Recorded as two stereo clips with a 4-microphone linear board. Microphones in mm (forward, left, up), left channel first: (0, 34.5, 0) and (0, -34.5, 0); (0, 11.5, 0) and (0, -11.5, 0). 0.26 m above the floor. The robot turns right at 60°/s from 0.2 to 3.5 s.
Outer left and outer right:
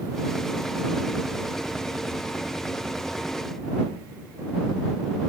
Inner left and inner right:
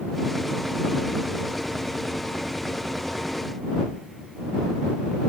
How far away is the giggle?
No giggle in this recording.